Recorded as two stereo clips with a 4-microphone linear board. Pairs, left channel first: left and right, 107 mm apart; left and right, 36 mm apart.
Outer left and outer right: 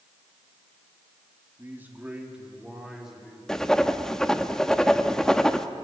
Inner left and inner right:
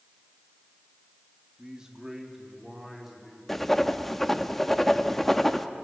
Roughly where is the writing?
Centre.